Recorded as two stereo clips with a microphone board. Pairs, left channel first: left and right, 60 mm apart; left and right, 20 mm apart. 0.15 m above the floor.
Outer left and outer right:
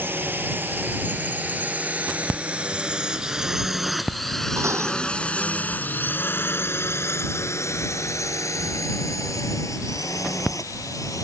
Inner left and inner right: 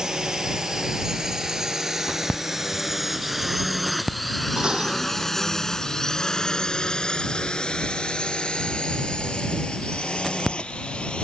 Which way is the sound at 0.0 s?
35° right (ahead or behind).